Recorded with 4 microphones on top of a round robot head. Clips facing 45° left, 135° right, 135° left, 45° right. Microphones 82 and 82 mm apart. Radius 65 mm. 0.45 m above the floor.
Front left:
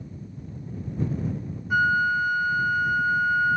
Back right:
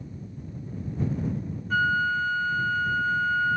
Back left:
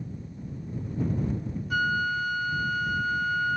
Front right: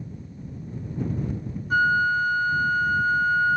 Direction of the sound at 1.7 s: 25° right.